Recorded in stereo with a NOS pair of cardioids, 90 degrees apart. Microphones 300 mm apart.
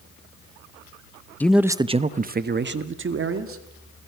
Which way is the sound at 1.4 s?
5° left.